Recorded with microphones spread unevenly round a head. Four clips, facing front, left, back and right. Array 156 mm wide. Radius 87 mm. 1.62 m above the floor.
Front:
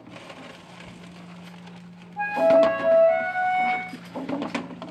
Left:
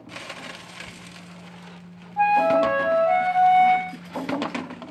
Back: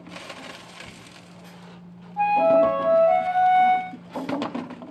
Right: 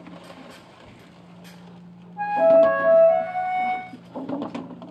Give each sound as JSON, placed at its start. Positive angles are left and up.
{"t": 2.2, "sound": "a flute", "azimuth_deg": 110, "distance_m": 1.1}